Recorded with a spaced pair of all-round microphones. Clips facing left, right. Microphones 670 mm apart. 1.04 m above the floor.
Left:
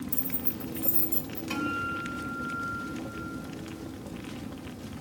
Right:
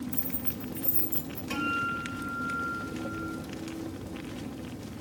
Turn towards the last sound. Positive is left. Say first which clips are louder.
# left 1 dB
turn(degrees=15)  # may be behind; listen again after turning